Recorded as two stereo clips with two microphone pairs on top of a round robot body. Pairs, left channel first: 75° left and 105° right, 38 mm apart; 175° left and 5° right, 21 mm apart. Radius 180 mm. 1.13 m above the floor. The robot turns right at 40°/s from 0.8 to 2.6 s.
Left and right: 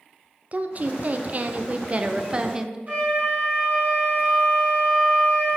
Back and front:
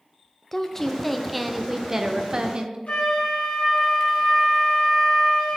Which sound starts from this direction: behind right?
A woman speaking, at 0.5 s.